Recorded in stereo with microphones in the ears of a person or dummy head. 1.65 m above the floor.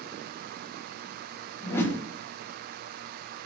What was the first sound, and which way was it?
A whoosh, 15° left (ahead or behind).